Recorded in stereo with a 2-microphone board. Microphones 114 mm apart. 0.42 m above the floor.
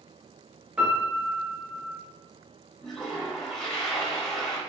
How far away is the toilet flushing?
About 0.7 m.